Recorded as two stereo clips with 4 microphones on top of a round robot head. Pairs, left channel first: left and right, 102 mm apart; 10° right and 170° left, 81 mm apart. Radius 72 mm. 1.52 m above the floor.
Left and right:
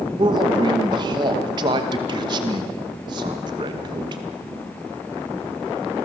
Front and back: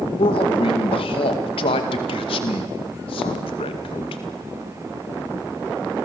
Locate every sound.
0.2 s a man speaking: 35° right, 2 m